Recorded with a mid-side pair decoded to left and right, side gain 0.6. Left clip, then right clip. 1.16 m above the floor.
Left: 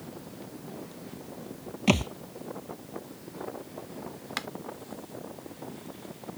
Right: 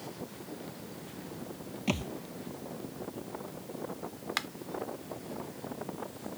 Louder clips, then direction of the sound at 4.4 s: Right 1 dB; 5° right.